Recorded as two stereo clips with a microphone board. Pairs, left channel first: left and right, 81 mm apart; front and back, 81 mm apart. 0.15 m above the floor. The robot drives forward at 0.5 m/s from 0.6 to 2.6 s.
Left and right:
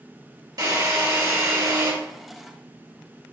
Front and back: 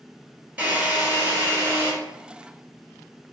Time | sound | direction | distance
0.6 | a drill | 110° right | 2 m